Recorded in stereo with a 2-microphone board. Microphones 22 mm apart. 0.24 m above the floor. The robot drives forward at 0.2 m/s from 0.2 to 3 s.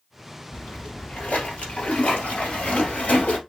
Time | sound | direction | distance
0.5 | a splash | 80° left | 1.6 m